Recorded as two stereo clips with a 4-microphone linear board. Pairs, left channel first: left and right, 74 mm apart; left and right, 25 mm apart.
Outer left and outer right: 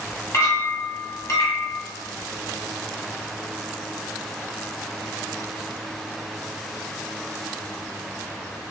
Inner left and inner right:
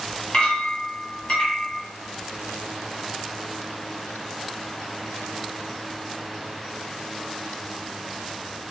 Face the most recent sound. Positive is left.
turn(degrees=45)  # may be behind; listen again after turning